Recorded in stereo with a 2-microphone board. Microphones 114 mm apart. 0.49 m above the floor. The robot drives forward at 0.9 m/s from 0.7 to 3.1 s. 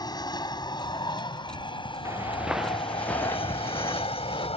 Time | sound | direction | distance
0.0 | an aircraft | 35° left (ahead or behind) | ?
2.0 | footsteps | 25° right (ahead or behind) | ?